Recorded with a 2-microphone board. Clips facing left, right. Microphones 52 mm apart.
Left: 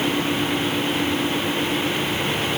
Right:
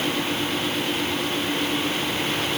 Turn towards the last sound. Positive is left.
No sound to turn to.